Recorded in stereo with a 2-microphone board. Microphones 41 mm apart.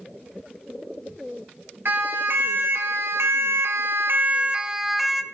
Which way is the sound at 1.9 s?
60° right (ahead or behind).